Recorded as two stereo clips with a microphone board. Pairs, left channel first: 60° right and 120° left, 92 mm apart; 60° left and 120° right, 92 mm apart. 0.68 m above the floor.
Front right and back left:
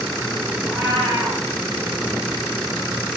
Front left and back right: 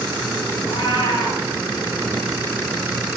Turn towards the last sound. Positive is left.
turn(degrees=65)